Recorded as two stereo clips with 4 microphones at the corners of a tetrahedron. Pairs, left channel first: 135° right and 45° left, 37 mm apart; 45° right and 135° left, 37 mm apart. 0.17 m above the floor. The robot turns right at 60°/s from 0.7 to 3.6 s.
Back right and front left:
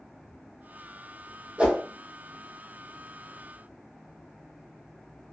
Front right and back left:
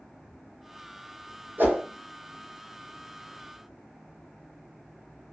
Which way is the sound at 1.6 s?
105° left.